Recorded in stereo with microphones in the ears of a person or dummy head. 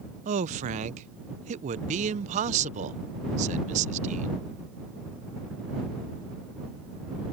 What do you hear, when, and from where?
0.2 s a man speaking: 35° right (ahead or behind)